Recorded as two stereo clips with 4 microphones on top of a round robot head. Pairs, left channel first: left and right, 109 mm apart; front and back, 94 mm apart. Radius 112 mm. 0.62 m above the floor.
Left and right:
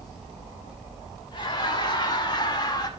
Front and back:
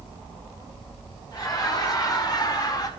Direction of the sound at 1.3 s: 45° left.